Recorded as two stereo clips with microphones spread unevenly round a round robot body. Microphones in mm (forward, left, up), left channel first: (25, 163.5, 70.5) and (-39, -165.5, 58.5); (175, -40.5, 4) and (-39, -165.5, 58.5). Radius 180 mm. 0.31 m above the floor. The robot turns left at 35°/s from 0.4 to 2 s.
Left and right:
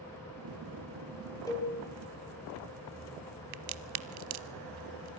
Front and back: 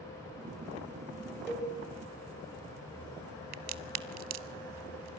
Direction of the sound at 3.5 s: 140° right.